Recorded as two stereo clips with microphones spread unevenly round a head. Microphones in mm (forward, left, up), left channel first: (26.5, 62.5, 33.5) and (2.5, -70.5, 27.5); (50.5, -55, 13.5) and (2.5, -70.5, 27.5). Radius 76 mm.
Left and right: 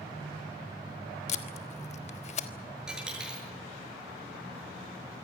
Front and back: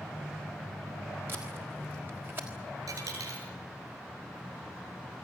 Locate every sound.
1.3 s tape being pulled: 125° left, 1.3 m
2.9 s a dropped coin: 175° left, 7.5 m